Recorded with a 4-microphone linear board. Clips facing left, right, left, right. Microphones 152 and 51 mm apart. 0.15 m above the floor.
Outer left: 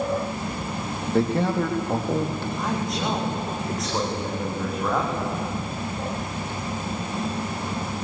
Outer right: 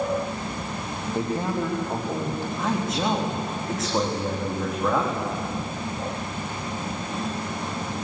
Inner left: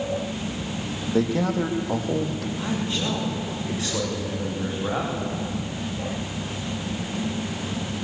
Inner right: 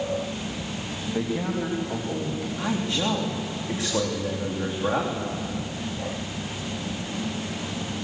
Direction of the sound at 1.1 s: 80° left.